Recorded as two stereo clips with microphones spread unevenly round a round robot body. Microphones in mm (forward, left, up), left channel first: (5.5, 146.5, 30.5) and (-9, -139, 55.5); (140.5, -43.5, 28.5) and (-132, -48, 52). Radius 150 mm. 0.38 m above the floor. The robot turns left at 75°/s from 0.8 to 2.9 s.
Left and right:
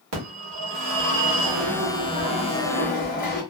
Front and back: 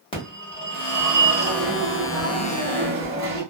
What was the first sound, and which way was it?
A phone ringing, 65° right.